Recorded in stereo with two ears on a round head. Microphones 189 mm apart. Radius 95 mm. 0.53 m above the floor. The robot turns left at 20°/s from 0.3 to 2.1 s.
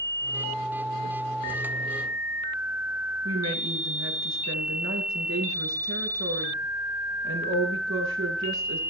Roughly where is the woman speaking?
Right.